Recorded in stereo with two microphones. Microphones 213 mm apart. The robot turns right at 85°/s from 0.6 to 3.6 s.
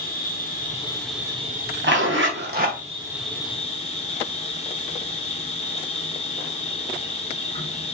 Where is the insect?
135° left, 0.7 m; by 8.0 s 30° left, 0.7 m.